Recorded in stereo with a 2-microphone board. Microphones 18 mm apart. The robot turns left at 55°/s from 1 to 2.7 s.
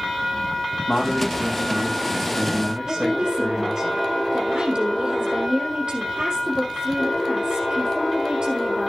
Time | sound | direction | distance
0.9 | a man speaking | 50° left | 7.5 m
2.9 | a woman speaking | 55° right (ahead or behind) | 4 m